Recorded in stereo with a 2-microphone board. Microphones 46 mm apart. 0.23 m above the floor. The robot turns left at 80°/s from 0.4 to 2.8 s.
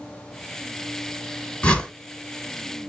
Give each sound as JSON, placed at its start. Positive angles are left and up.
{"t": 1.6, "sound": "a whoosh", "side_deg": 30, "distance_m": 2.0}